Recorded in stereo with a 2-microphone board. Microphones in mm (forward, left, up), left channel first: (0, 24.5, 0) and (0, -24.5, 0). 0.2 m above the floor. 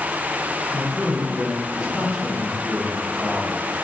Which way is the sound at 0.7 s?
15° right (ahead or behind).